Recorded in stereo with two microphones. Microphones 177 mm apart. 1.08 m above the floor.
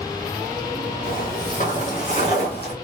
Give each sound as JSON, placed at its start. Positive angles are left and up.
{"t": 1.0, "sound": "footsteps", "side_deg": 55, "distance_m": 1.9}